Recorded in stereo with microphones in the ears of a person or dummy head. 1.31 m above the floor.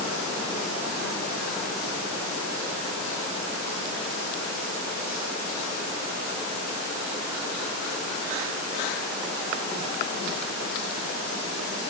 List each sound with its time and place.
Only background noise.